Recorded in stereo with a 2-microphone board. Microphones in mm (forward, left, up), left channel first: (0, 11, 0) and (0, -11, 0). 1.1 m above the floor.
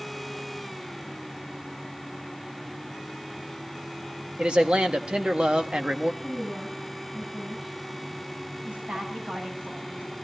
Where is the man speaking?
55° right (ahead or behind), 1.6 m.